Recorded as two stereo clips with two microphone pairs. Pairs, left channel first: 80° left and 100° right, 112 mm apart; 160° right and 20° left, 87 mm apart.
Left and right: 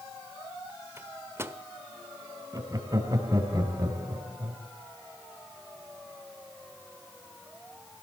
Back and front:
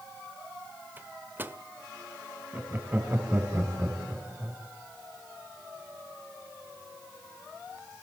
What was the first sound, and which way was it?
A microwave, 40° right.